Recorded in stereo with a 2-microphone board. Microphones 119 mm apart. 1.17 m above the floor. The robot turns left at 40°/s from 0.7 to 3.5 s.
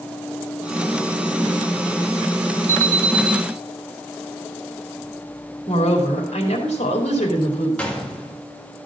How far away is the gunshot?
About 1.7 m.